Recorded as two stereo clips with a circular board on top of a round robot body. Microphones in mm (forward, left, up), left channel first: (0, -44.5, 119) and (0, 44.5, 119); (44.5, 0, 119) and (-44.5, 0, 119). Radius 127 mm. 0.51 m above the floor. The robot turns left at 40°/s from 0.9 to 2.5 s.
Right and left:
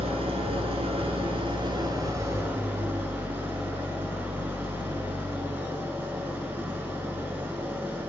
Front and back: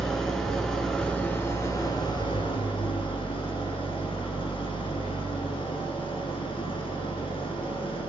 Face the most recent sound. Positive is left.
turn(degrees=25)